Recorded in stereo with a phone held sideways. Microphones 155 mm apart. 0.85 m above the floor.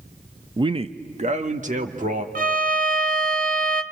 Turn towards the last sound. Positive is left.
turn(degrees=-60)  # may be behind; listen again after turning